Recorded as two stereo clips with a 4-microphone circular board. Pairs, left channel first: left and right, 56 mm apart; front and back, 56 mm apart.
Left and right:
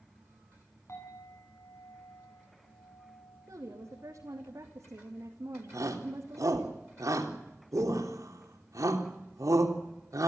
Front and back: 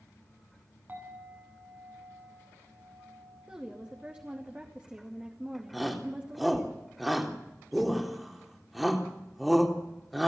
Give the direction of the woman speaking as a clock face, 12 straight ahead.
4 o'clock.